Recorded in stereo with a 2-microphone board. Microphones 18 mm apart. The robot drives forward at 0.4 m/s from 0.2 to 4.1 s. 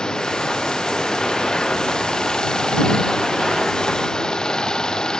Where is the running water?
45° left (ahead or behind).